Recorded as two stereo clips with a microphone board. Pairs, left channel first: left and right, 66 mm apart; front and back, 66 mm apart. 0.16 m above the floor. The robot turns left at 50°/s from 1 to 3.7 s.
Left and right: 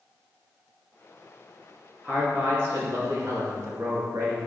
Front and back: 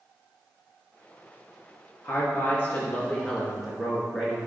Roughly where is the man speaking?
Ahead.